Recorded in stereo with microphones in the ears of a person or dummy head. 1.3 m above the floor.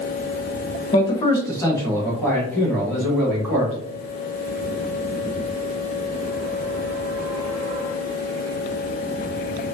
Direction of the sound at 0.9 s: 25° left (ahead or behind).